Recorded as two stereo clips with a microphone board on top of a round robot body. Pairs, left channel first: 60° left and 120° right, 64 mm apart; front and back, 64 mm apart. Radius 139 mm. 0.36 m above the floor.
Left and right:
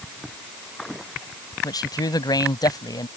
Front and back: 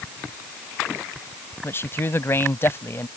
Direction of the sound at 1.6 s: 55° left.